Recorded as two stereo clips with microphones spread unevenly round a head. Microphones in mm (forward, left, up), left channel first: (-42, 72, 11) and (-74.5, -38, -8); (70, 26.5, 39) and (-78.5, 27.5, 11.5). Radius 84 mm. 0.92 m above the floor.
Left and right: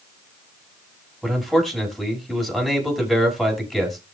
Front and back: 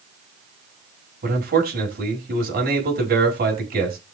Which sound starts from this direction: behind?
A man speaking, at 1.2 s.